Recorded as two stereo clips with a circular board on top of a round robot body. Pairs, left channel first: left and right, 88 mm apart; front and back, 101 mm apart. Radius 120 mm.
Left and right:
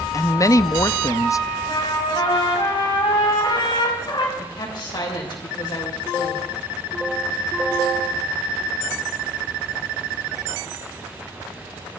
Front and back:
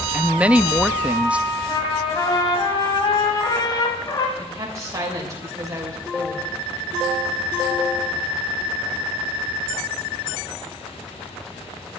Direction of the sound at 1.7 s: 50° left.